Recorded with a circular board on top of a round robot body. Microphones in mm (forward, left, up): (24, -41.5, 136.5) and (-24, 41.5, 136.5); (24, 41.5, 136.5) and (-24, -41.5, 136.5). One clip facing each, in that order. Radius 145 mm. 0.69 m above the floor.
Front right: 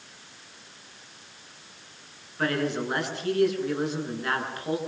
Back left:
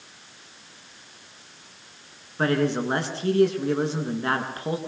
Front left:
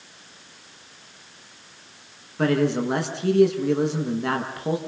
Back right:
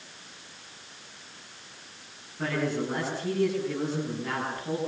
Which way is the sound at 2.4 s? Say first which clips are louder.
Back left 4 dB, front left 8 dB; 60° left.